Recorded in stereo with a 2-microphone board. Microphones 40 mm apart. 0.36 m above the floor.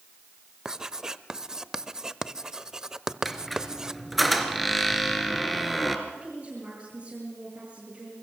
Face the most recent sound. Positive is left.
turn(degrees=-35)  # may be behind; listen again after turning